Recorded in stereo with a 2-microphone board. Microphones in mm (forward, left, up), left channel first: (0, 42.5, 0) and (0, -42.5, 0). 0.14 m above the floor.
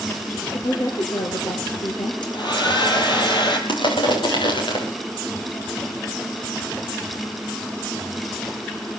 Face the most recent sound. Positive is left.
turn(degrees=70)  # may be behind; listen again after turning